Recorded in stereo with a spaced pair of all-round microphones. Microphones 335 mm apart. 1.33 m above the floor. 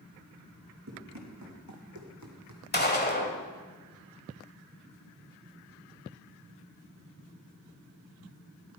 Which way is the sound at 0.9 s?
55° right (ahead or behind).